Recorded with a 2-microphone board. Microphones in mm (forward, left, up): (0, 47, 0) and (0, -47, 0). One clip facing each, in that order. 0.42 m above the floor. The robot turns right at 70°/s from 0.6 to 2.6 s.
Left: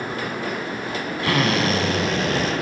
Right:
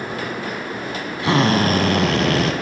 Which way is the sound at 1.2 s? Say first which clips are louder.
Right 4 dB; 160° right.